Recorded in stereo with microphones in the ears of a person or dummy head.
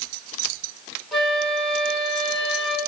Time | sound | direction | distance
1.1 | a flute | 5° left (ahead or behind) | 1.9 m